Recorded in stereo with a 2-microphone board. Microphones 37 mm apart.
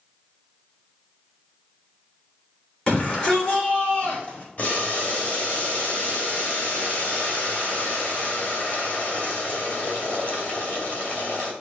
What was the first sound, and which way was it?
A shout, 25° left (ahead or behind).